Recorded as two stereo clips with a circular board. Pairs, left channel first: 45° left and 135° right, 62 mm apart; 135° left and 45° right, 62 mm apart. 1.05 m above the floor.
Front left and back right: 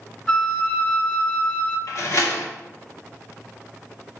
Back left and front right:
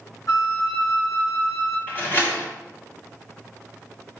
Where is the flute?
120° left, 1.0 m.